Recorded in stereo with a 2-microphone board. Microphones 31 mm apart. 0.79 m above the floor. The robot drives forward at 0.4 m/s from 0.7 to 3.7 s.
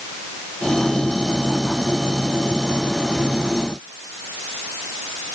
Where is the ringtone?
No ringtone in this recording.